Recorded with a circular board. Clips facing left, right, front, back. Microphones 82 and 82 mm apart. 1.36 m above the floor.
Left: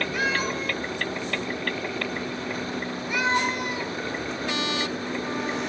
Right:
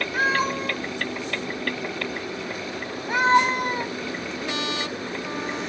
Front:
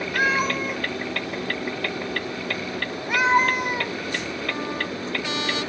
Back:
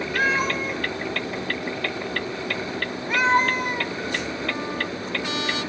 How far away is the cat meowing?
About 1.4 m.